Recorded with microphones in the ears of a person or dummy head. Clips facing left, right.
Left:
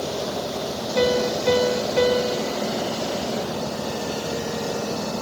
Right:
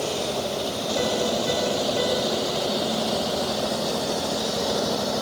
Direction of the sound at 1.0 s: 65° left (ahead or behind).